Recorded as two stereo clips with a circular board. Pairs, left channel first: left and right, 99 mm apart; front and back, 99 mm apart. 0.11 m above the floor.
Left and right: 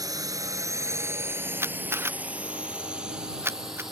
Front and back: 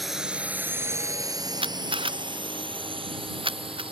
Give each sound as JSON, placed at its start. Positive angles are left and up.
{"t": 0.0, "sound": "a drone", "azimuth_deg": -90}
{"t": 1.6, "sound": "a camera shutter", "azimuth_deg": -155}